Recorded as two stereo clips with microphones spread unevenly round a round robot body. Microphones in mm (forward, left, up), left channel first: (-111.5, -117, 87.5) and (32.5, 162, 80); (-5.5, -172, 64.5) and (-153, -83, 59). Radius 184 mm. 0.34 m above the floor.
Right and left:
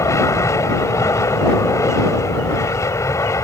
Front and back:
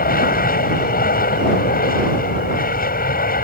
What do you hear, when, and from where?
0.0 s an aircraft: 35° right